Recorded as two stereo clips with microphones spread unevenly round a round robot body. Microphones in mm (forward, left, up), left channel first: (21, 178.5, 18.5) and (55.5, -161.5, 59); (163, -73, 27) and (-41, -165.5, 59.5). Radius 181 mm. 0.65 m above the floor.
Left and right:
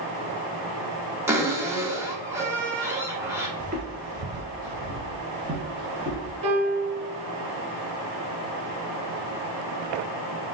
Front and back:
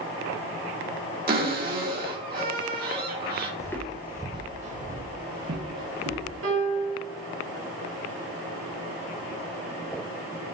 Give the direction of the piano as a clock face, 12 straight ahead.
4 o'clock.